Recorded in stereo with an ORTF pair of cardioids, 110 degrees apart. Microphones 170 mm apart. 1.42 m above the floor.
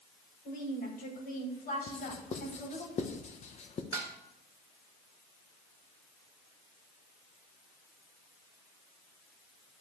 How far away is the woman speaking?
About 5.5 m.